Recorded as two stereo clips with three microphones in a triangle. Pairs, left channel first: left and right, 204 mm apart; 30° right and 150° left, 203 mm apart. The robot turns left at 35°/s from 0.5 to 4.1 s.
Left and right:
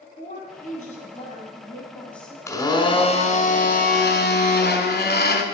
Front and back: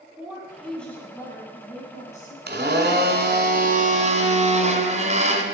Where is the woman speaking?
65° left, 2 m; by 2.4 s straight ahead, 2 m.